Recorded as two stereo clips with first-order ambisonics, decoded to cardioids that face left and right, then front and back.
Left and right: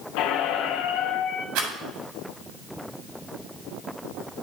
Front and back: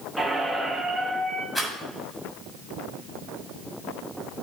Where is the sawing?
I don't hear sawing.